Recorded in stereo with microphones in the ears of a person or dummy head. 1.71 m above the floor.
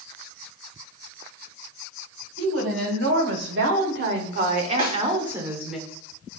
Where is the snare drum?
25° right (ahead or behind), 1.6 m.